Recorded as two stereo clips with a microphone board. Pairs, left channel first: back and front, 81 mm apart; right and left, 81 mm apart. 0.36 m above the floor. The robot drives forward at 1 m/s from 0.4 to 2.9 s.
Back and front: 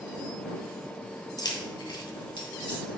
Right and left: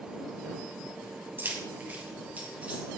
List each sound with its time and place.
1.4 s keys jangling: 150° left, 1.9 m; by 2.8 s 165° left, 3 m